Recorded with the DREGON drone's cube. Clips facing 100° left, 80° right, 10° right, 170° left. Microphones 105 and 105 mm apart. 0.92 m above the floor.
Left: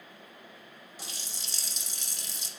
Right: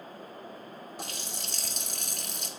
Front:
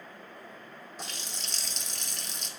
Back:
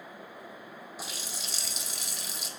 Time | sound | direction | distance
1.0 | a running tap | 105° right | 0.6 m